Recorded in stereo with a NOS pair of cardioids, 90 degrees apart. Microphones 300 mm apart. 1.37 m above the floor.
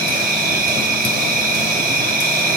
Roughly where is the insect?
Ahead right.